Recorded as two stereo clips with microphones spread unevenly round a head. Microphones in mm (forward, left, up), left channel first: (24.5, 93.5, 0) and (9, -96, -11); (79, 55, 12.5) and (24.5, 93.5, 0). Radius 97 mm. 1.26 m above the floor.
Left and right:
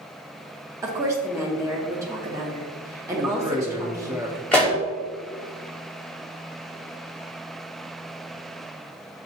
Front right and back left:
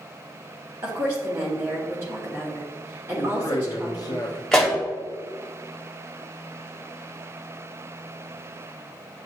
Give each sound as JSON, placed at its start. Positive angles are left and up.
{"t": 0.8, "sound": "a woman speaking", "azimuth_deg": -165, "distance_m": 0.9}
{"t": 3.2, "sound": "a man speaking", "azimuth_deg": -20, "distance_m": 0.6}
{"t": 4.5, "sound": "a pop", "azimuth_deg": 10, "distance_m": 1.1}